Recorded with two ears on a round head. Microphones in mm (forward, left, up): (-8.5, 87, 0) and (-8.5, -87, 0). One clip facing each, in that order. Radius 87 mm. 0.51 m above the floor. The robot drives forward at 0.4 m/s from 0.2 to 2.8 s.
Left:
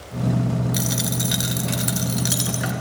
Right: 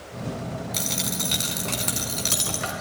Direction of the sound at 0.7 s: 10° left (ahead or behind).